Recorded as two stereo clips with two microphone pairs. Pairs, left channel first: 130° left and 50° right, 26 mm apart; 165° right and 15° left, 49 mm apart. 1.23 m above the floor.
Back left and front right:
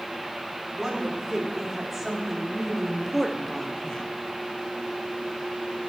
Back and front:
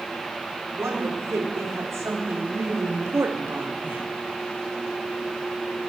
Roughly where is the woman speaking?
Ahead.